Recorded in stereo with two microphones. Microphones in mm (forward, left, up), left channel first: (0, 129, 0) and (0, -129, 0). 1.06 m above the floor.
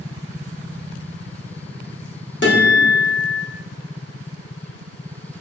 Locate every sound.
2.4 s a guitar: 45° left (ahead or behind), 0.9 m